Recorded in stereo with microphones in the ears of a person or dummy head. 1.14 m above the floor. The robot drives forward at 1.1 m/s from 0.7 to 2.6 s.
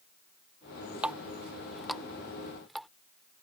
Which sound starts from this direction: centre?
A running tap, at 1.0 s.